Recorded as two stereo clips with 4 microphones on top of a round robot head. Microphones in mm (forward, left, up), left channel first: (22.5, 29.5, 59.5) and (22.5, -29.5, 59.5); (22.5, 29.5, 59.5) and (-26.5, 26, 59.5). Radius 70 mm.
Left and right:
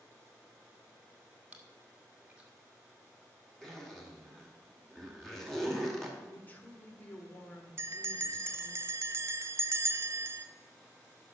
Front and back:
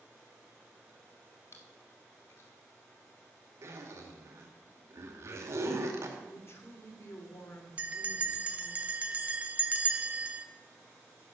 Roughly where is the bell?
Behind right.